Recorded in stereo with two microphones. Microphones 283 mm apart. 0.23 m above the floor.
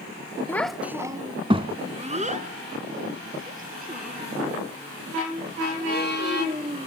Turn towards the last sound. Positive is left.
turn(degrees=-35)  # may be behind; listen again after turning